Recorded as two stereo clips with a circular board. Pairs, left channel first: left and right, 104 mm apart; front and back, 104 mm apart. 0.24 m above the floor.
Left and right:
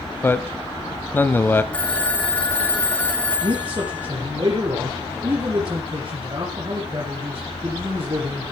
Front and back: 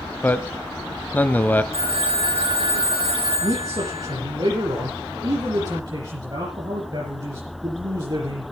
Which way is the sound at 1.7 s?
170° left.